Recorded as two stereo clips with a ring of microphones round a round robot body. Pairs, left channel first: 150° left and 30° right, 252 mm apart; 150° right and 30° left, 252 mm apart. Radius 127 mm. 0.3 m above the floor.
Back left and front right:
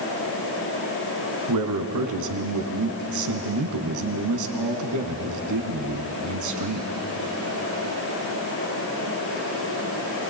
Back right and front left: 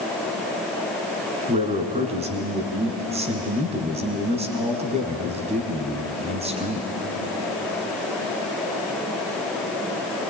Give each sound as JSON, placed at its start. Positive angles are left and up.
{"t": 1.5, "sound": "a man speaking", "azimuth_deg": -35, "distance_m": 3.0}